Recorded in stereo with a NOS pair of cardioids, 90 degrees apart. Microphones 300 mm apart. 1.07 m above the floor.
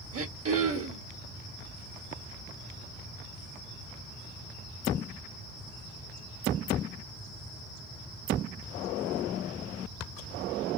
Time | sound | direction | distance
0.1 | throat clearing | 45° right | 1.6 m